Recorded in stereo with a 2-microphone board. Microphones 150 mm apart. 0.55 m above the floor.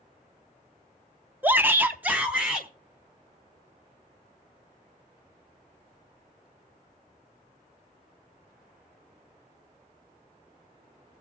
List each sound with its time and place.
1.4 s a shout: 10° right (ahead or behind), 0.6 m; by 2.7 s 5° right (ahead or behind), 1.5 m